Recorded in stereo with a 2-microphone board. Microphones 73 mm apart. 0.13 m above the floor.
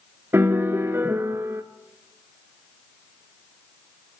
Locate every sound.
0.3 s a piano: 35° right (ahead or behind), 0.6 m